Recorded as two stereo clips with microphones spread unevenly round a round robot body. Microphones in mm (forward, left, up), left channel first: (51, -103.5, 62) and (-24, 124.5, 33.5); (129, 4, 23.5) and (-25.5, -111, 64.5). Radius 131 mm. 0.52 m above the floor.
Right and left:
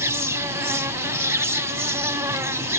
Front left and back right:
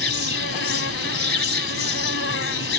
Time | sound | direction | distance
0.0 | an insect | 30° left | ?